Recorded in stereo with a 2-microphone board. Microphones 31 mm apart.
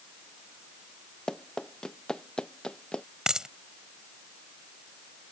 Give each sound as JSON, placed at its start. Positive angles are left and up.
{"t": 1.3, "sound": "running footsteps", "side_deg": 20}
{"t": 3.3, "sound": "a dropped coin", "side_deg": -25}